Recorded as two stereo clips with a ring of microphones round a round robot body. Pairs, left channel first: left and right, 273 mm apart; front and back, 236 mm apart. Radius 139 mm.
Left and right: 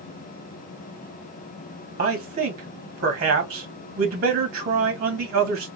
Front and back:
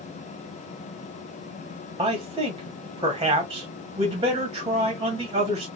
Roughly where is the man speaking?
Behind right.